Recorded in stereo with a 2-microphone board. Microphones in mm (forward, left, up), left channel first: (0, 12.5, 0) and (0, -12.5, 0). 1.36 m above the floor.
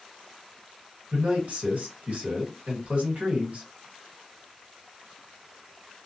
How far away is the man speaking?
About 1.3 m.